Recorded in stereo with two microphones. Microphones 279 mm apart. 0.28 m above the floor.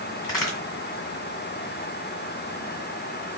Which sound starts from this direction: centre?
A crack, at 0.2 s.